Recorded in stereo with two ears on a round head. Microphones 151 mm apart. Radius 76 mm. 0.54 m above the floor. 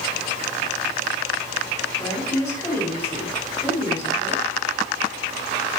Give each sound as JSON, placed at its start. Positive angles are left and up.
{"t": 2.0, "sound": "a woman speaking", "side_deg": 15, "distance_m": 4.0}